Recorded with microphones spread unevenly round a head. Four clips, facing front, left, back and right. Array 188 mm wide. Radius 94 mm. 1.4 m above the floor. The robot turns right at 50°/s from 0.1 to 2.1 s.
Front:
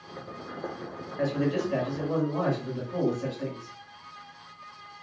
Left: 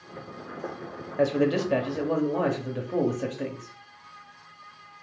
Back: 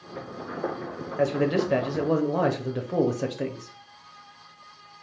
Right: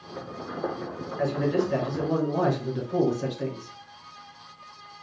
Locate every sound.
1.2 s a man speaking: 125° left, 0.8 m; by 3.8 s 170° left, 0.8 m